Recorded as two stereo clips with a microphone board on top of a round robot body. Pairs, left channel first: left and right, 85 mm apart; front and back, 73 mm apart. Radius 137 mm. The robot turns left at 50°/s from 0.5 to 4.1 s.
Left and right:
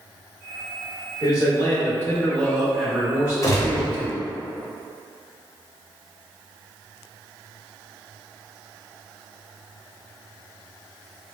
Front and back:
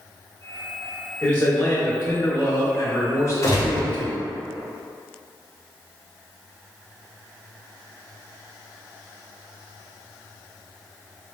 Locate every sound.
1.2 s a man speaking: 80° left, 1.2 m; by 4.2 s 65° right, 1.2 m
3.4 s a gunshot: 45° left, 0.7 m; by 3.9 s 20° left, 0.7 m